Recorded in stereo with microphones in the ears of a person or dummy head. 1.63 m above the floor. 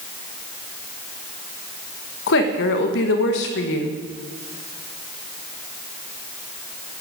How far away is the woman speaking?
About 1.4 m.